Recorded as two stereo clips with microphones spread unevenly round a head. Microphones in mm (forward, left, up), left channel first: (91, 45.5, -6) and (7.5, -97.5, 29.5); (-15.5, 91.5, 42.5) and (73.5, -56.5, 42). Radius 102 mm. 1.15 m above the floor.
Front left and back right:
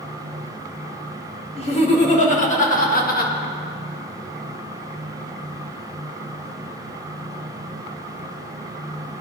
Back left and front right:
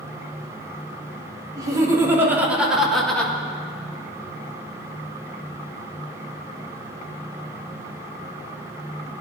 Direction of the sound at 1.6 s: 10° left.